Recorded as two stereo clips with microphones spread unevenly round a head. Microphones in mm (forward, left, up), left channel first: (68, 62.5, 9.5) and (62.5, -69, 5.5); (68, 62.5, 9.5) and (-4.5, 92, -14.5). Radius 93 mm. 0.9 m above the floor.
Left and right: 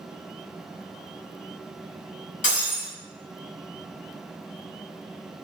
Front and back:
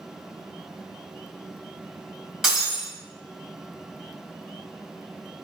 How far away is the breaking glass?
About 1.6 m.